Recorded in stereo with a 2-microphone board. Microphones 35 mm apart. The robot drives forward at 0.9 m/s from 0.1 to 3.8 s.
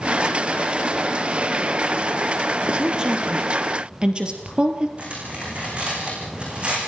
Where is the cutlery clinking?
35° right (ahead or behind), 7 m.